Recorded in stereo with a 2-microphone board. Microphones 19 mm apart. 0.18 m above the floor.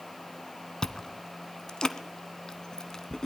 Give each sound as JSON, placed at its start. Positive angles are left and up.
{"t": 0.8, "sound": "chewing", "side_deg": 35, "distance_m": 1.0}